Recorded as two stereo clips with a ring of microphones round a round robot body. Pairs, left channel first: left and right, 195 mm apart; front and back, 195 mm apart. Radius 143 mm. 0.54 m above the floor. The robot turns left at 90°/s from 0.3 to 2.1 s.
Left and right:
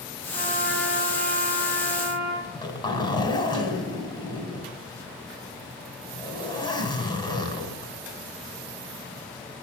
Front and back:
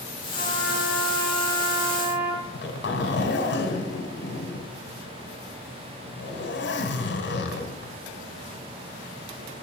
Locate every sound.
0.3 s a trumpet: 55° right, 4.5 m; by 2.3 s 145° left, 4.5 m
2.4 s a zipper: 20° left, 3.5 m